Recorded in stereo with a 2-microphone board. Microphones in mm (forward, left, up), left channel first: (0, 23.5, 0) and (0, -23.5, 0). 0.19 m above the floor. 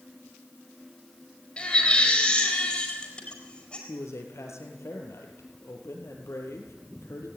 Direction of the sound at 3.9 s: 70° left (ahead or behind).